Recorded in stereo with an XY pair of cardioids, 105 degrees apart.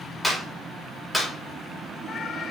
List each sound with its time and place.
0.2 s a clap: 5° left, 5.5 m